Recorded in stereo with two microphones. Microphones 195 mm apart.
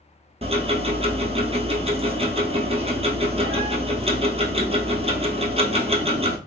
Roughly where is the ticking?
Right.